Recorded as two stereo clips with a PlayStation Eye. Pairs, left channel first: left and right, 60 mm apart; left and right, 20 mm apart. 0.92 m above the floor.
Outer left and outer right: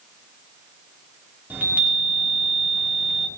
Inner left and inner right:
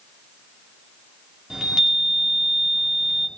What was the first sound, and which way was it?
A chime, 30° right (ahead or behind).